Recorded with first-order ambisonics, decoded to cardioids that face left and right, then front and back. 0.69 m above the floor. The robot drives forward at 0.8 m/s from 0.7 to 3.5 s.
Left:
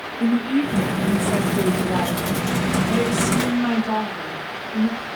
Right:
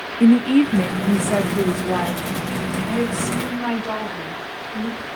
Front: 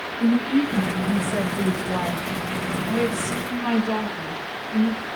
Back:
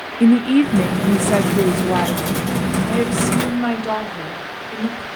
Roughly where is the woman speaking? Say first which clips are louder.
Right 6 dB, back 7 dB; behind right.